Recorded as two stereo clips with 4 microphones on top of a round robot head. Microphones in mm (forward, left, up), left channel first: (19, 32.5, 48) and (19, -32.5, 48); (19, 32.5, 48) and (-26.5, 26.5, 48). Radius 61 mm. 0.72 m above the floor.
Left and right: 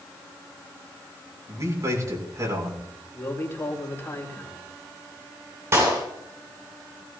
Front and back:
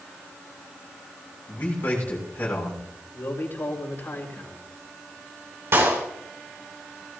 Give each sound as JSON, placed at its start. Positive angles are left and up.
{"t": 1.5, "sound": "a man speaking", "azimuth_deg": -50, "distance_m": 6.5}
{"t": 3.1, "sound": "a man speaking", "azimuth_deg": 40, "distance_m": 4.0}
{"t": 5.7, "sound": "a clap", "azimuth_deg": -140, "distance_m": 6.5}